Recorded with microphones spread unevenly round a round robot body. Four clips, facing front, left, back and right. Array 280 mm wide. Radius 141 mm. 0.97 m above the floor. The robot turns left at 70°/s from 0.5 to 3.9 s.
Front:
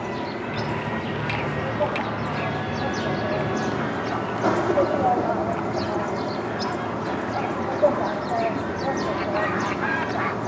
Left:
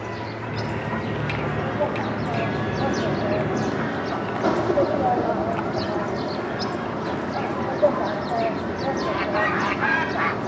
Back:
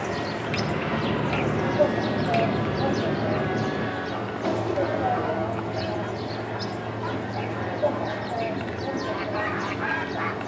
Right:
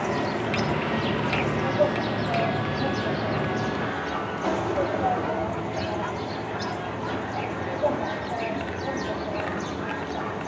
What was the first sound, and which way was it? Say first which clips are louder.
An insect: right 5 dB, even; 75° right.